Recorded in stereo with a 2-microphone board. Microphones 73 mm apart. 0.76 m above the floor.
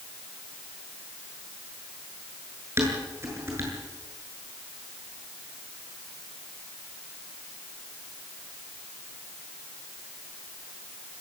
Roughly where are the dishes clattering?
Right.